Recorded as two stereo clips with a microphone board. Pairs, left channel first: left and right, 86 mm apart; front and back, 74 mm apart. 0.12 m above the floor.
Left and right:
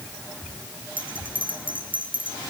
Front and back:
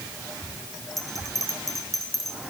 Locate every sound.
1.0 s a bell: 90° right, 5.5 m